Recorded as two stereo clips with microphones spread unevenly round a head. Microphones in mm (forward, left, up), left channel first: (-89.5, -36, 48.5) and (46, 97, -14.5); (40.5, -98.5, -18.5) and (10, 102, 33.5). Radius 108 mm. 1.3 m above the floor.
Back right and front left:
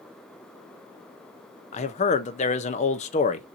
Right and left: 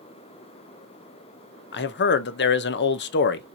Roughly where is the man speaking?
Right.